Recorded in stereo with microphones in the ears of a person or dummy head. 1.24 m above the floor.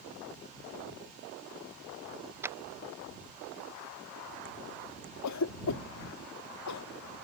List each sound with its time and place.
2.4 s a clap: 15° right (ahead or behind)
5.2 s a cough: 90° left